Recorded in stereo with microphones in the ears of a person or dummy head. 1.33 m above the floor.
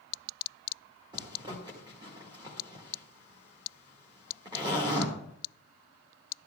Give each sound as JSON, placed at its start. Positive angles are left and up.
{"t": 1.1, "sound": "a zipper", "side_deg": -25, "distance_m": 1.6}